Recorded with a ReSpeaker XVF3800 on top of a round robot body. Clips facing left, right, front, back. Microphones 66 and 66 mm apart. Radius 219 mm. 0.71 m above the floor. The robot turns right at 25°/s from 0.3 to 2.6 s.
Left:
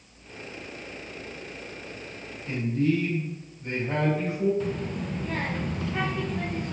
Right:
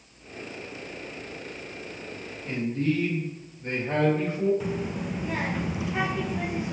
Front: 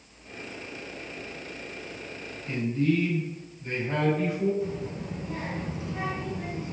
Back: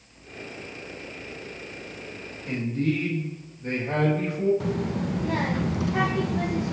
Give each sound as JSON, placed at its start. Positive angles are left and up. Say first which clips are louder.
{"t": 2.5, "sound": "a man speaking", "louder": "left 2 dB, front 1 dB", "azimuth_deg": -150, "distance_m": 3.0}
{"t": 4.6, "sound": "a child speaking", "louder": "even, back 5 dB", "azimuth_deg": -170, "distance_m": 0.6}